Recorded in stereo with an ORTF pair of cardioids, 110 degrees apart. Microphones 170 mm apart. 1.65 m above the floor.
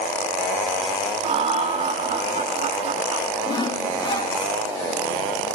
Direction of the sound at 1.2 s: 40° right.